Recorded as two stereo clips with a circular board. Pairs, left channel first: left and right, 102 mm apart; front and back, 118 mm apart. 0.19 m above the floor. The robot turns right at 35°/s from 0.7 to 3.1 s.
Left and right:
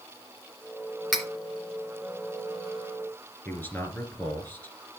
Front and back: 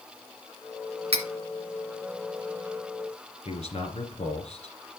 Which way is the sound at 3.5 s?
20° left.